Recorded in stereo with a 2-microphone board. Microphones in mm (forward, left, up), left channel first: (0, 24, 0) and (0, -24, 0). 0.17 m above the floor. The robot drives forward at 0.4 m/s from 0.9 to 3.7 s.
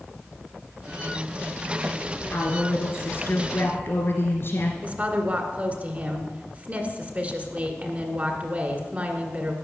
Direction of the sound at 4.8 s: 30° right (ahead or behind).